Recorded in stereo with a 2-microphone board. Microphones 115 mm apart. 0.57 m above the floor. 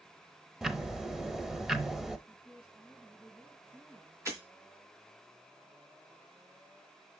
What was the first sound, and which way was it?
Ticking, 5° right (ahead or behind).